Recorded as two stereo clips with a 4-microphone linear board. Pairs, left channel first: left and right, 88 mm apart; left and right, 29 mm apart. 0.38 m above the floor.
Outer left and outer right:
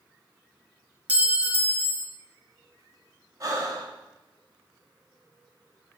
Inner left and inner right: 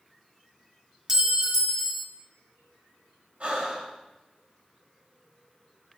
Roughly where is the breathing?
Right.